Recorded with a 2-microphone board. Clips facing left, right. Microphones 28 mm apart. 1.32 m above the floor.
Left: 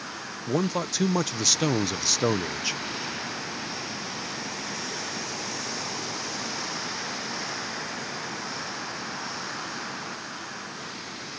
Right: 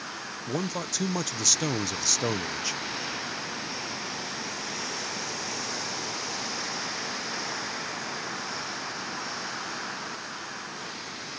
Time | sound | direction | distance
0.5 | a man speaking | 20° left (ahead or behind) | ?